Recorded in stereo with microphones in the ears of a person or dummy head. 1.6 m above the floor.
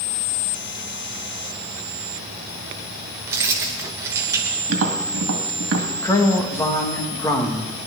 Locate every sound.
3.3 s keys jangling: 15° right (ahead or behind), 1.1 m
4.7 s tapping: 75° right (ahead or behind), 2.0 m
6.0 s a man speaking: 15° left (ahead or behind), 2 m